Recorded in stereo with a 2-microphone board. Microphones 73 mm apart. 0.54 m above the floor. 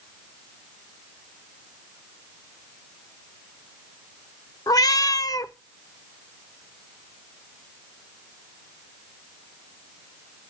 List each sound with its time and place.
4.7 s a cat meowing: 55° left (ahead or behind), 0.5 m